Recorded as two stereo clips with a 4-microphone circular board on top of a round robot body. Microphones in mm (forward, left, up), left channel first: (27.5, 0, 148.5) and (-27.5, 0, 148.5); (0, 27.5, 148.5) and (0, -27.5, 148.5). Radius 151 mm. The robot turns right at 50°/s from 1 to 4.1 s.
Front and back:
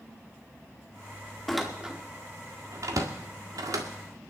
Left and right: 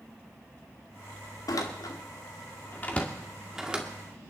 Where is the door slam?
85° left, 1.7 m; by 4.3 s 145° right, 1.7 m.